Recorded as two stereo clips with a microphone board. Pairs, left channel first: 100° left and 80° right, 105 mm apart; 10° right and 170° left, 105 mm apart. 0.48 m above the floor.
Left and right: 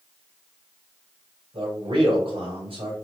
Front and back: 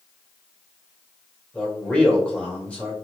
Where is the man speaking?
90° right, 2.5 m.